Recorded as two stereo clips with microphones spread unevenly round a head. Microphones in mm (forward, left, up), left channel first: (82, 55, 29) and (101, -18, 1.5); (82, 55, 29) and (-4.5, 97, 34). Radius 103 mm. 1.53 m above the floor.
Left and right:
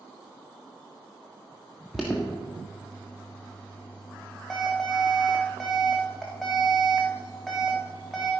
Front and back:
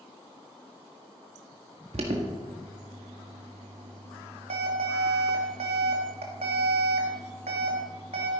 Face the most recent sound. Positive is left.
turn(degrees=-175)